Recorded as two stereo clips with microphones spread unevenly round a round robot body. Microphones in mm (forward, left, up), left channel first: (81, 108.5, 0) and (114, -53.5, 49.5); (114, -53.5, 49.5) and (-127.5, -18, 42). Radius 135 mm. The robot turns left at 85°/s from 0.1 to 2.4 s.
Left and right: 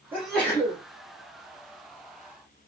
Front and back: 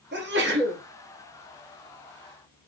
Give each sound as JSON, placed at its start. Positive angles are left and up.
{"t": 0.1, "sound": "a sneeze", "azimuth_deg": -170, "distance_m": 1.0}